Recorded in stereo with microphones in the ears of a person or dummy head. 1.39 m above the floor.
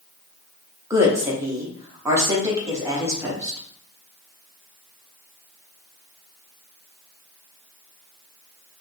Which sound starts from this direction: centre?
A woman speaking, at 0.9 s.